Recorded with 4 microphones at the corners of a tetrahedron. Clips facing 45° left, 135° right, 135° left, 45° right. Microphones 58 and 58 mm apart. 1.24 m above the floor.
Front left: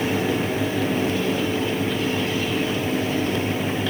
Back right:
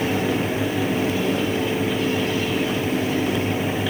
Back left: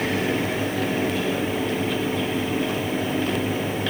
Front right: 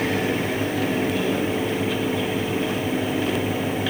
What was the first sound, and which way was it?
Only background noise.